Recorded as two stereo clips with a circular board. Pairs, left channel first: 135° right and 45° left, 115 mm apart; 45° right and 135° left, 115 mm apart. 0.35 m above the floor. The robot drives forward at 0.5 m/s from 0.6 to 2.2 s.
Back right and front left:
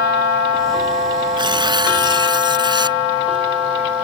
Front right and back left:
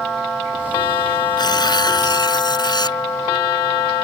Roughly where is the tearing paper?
Ahead.